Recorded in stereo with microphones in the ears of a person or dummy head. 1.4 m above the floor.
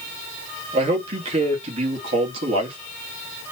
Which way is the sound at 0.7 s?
35° right (ahead or behind).